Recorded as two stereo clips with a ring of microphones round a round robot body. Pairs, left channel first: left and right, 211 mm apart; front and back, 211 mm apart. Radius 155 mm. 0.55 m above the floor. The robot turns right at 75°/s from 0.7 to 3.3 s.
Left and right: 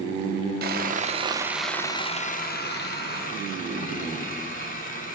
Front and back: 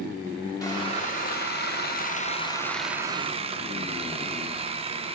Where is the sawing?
70° right, 0.9 m; by 5.2 s 125° left, 0.9 m.